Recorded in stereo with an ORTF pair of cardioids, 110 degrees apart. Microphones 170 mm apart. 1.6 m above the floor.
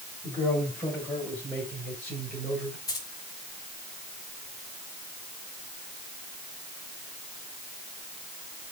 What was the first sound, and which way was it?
A man speaking, 15° left.